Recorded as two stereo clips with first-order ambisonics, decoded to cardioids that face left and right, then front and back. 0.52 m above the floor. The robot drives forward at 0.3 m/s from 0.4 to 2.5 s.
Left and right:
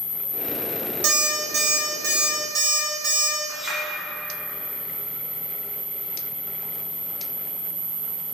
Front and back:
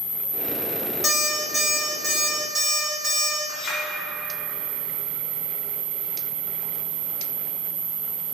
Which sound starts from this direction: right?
An alarm clock, at 1.0 s.